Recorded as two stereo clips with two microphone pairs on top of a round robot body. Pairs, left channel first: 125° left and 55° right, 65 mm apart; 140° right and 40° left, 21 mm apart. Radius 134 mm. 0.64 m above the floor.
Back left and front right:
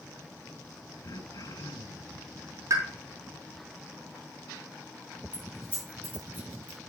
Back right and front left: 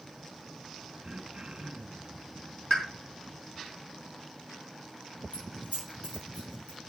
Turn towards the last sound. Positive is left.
turn(degrees=-125)